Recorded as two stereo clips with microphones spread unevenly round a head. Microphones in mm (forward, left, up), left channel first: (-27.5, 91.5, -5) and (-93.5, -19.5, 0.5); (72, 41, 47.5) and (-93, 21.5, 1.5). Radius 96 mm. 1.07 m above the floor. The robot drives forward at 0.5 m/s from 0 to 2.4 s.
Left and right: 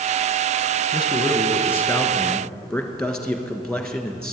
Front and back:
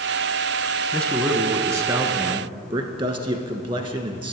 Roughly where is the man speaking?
Left.